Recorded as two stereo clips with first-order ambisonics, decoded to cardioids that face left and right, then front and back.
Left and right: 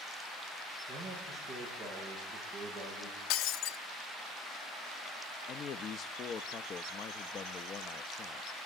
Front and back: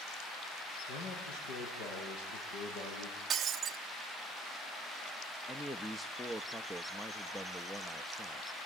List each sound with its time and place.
0.9 s a man speaking: 5° left, 8.5 m
3.3 s breaking glass: 115° left, 1.1 m
5.5 s a man speaking: 80° left, 0.6 m